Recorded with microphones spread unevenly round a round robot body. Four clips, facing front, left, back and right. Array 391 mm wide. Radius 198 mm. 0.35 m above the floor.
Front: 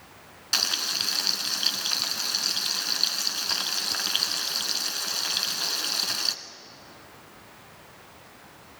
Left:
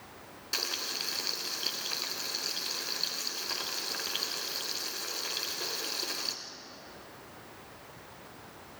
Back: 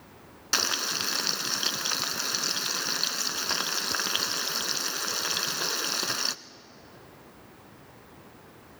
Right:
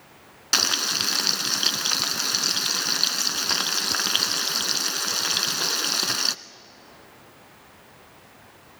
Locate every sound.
0.5 s frying: 95° right, 0.8 m